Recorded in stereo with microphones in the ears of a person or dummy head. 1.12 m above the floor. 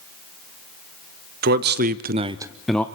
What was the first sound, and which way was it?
A man speaking, 50° right (ahead or behind).